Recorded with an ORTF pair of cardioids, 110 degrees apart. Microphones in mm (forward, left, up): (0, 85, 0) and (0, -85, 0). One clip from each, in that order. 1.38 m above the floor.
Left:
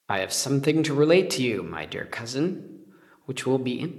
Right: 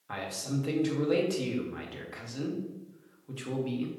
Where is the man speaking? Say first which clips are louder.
Left 10 dB; 60° left, 0.5 m.